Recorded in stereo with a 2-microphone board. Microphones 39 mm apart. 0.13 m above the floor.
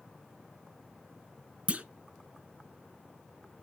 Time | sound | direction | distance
1.7 | a clunk | 35° right (ahead or behind) | 0.6 m